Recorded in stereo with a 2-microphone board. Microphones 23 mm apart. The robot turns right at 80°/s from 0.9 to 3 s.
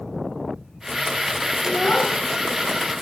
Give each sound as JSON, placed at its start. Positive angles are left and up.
{"t": 1.6, "sound": "a child speaking", "azimuth_deg": 80, "distance_m": 2.0}